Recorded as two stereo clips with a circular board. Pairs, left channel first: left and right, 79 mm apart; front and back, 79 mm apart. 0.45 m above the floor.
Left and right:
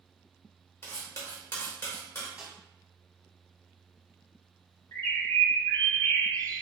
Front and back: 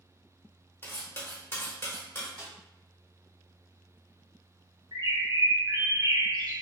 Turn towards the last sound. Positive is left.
turn(degrees=150)